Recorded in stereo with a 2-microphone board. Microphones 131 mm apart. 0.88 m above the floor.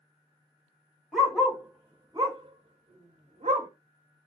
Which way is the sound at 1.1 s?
Centre (ahead or behind).